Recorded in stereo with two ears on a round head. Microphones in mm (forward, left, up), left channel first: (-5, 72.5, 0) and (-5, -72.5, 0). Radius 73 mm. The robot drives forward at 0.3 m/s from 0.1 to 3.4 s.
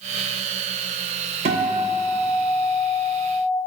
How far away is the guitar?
About 0.5 m.